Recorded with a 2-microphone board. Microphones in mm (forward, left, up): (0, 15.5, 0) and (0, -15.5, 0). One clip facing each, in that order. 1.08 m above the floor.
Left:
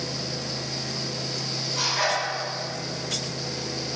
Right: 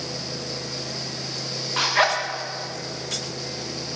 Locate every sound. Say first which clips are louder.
1.8 s a zipper: right 5 dB; 65° right (ahead or behind), 1.1 m